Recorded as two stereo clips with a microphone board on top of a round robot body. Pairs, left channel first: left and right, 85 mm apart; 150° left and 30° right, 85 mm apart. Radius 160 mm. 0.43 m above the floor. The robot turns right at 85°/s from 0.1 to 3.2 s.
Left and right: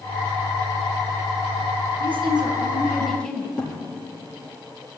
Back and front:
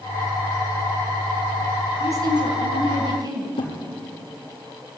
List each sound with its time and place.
2.0 s a woman speaking: 90° right, 3.5 m; by 3.6 s 10° left, 3.5 m
3.6 s a thud: 165° left, 5 m